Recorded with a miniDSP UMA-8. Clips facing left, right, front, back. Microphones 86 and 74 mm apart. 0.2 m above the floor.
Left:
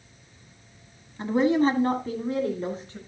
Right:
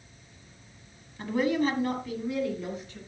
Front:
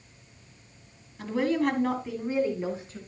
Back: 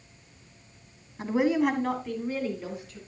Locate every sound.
1.2 s a woman speaking: 140° left, 1.7 m; by 3.0 s 45° left, 2.5 m